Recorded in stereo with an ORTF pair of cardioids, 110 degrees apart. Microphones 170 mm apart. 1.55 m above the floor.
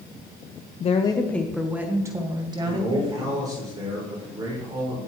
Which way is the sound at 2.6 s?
20° right.